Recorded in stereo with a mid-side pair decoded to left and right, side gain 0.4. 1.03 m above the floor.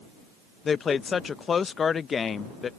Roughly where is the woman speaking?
Ahead left.